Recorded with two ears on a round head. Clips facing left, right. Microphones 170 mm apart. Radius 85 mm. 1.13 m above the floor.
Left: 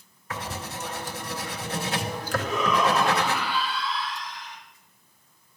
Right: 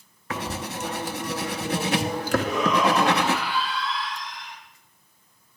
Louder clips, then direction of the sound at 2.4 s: Even; 15° right (ahead or behind).